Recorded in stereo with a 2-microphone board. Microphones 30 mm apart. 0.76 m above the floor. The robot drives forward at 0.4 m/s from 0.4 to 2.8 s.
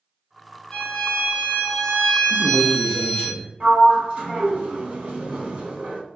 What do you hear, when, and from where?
0.7 s a violin: 30° left (ahead or behind), 1.1 m; by 3.3 s 25° left (ahead or behind), 1.4 m
2.3 s a man speaking: 35° left (ahead or behind), 0.6 m; by 3.5 s 25° left (ahead or behind), 0.7 m
3.6 s a sliding door: 30° right (ahead or behind), 1.6 m